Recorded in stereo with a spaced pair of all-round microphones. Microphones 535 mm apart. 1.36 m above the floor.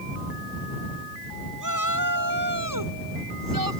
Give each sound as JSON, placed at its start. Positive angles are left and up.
{"t": 1.6, "sound": "a shout", "side_deg": -35}